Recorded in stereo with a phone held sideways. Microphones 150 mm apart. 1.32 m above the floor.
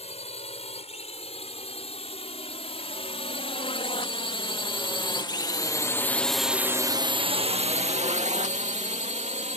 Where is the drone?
45° left (ahead or behind); by 9.6 s 50° right (ahead or behind).